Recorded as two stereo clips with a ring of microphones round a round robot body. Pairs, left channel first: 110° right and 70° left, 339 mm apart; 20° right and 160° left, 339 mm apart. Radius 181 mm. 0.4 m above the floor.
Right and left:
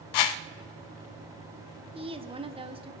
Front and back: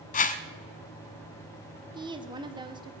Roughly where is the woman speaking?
Left.